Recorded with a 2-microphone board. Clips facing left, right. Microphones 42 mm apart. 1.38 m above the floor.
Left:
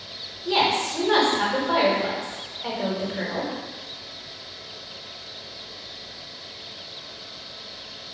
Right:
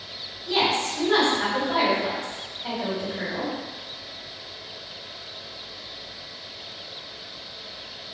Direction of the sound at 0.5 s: 70° left (ahead or behind).